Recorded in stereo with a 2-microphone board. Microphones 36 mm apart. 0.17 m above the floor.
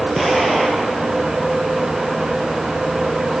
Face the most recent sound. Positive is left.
turn(degrees=0)  # may be behind; listen again after turning